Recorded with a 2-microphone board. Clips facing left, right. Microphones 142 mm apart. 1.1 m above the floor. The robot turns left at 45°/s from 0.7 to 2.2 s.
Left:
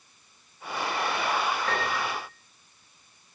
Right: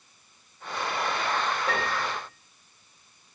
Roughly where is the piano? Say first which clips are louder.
Even; right.